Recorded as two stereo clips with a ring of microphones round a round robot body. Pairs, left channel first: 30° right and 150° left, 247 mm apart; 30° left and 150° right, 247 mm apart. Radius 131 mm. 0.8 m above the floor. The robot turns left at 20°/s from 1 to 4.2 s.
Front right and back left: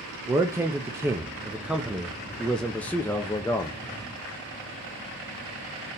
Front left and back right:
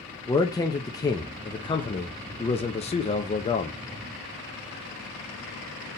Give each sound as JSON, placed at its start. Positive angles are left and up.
{"t": 0.3, "sound": "a man speaking", "azimuth_deg": 85, "distance_m": 0.6}